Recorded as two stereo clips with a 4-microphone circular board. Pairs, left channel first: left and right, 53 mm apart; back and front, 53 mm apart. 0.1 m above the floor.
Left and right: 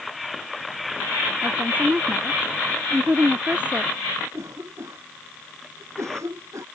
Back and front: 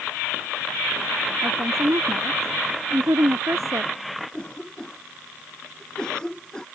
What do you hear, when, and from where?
1.4 s a woman speaking: 25° right
4.3 s a cough: 105° right